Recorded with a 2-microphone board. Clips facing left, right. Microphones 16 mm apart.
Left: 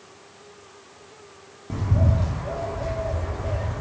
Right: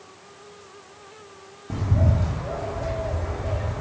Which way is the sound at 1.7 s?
Centre (ahead or behind).